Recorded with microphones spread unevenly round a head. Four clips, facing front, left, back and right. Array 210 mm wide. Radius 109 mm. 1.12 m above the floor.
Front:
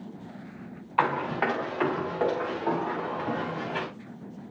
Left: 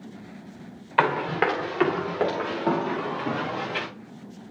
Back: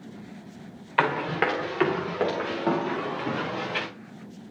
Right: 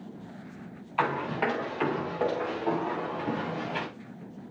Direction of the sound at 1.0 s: 125° left.